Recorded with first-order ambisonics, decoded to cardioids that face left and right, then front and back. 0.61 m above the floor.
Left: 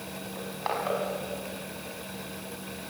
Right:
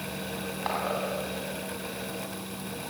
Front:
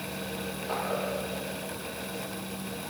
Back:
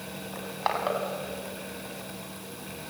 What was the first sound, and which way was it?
Crushing, straight behind.